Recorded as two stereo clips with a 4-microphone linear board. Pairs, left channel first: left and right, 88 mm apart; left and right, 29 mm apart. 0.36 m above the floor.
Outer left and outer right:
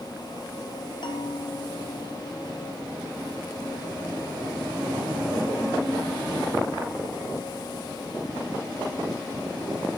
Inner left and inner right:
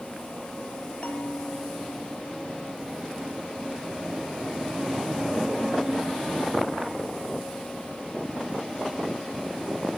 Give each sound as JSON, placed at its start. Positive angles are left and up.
{"t": 1.0, "sound": "a bell", "side_deg": 65, "distance_m": 1.9}